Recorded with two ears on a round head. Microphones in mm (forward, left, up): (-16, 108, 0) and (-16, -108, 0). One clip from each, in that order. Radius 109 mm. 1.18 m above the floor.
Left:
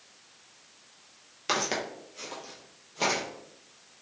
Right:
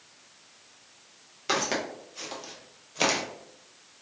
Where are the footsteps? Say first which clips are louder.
Right 1 dB; 10° left (ahead or behind), 1.2 m; by 3.2 s 45° right (ahead or behind), 1.6 m.